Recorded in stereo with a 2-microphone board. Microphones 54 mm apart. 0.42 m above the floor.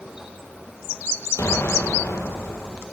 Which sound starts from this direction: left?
An explosion, at 1.4 s.